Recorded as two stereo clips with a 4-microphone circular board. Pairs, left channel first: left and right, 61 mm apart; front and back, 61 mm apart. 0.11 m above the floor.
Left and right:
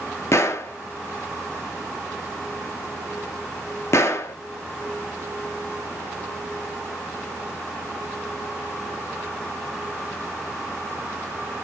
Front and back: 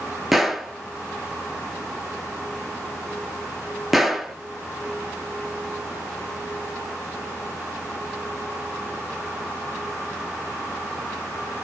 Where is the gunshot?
95° left, 0.5 m.